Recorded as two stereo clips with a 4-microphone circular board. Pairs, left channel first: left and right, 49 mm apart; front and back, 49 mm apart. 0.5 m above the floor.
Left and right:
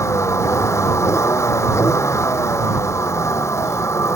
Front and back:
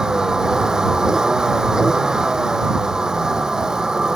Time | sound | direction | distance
0.0 | a vehicle | 105° left | ?